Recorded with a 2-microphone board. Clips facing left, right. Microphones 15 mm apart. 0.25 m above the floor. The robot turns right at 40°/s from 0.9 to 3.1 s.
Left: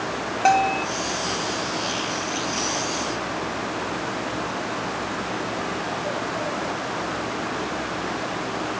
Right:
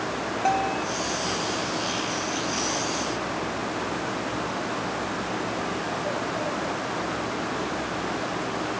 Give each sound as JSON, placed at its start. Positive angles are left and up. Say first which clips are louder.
{"t": 0.5, "sound": "a bell", "louder": "left 6 dB", "side_deg": 40}